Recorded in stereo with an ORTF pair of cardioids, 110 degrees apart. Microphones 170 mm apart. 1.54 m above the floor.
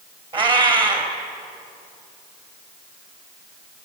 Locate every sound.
0.3 s a cat meowing: 30° right, 3.5 m